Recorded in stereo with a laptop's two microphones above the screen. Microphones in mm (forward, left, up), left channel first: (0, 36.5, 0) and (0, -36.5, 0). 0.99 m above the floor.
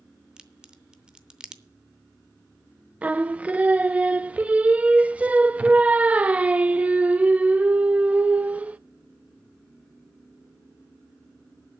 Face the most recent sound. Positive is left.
turn(degrees=-20)  # may be behind; listen again after turning